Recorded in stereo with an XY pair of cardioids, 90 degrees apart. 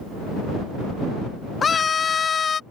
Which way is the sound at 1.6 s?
45° left.